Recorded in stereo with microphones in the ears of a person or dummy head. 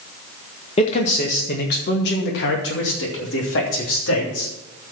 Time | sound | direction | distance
0.8 | a man speaking | 35° left (ahead or behind) | 1.6 m